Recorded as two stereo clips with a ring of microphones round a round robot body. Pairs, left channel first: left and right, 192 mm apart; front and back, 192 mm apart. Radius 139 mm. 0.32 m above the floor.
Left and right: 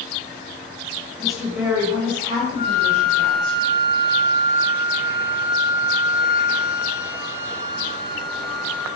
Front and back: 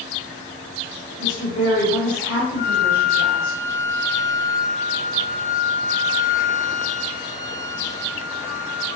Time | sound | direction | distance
1.2 | a woman speaking | 5° left | 1.4 m
2.6 | a flute | 45° left | 0.8 m